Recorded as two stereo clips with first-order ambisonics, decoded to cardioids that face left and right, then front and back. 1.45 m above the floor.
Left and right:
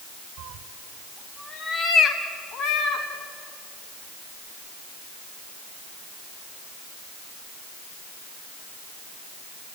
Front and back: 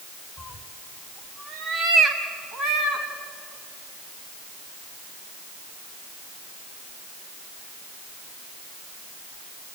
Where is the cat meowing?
105° right, 1.6 m; by 3.1 s 120° left, 3 m.